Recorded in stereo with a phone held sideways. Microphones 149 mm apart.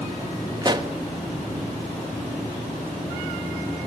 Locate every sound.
0.6 s a pop: 30° right (ahead or behind), 1.3 m